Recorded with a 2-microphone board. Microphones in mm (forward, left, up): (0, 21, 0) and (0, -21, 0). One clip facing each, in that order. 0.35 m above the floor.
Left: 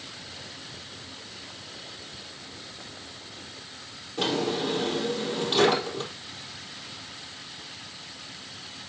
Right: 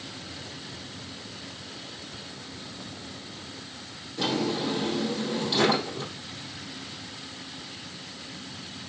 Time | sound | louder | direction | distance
4.2 | a drawer | left 1 dB | 45° left (ahead or behind) | 4 m